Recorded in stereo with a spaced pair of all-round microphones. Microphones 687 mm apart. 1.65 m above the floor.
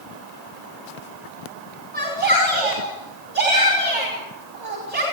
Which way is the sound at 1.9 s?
50° right (ahead or behind).